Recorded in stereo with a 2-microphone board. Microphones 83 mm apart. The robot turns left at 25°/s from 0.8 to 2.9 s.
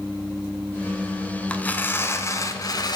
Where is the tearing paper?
165° left, 0.6 m; by 3.0 s 130° left, 0.6 m.